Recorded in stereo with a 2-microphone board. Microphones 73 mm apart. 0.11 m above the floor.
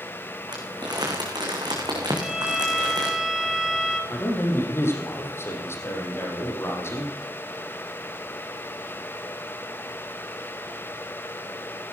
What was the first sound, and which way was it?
Crumpling, 80° right.